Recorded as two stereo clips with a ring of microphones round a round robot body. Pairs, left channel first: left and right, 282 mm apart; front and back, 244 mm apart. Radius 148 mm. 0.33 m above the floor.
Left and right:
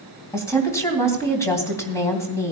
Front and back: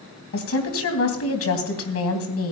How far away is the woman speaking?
About 3 m.